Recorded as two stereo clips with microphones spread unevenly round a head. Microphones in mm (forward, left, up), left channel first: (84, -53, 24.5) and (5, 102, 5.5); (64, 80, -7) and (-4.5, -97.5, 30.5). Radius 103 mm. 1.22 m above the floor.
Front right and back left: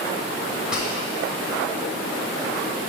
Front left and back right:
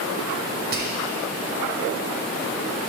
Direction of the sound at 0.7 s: 160° right.